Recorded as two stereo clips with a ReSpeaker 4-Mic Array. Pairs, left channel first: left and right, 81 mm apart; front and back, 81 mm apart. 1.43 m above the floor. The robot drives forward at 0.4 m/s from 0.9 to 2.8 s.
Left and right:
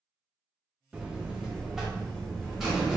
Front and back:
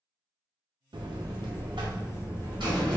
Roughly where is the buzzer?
Behind.